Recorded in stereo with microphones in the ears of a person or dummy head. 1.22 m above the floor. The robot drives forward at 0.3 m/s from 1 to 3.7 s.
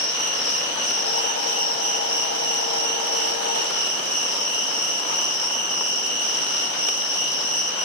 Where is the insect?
65° left (ahead or behind), 1.3 m; by 7.8 s 60° left (ahead or behind), 1.4 m.